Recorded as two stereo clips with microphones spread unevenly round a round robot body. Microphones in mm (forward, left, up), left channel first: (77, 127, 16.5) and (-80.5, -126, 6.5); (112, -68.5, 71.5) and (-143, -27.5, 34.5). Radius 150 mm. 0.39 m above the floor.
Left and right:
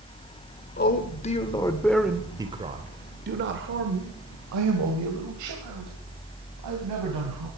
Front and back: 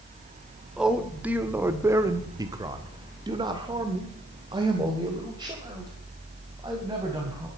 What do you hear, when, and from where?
0.8 s a man speaking: 95° left, 1.4 m; by 7.5 s 120° right, 3.5 m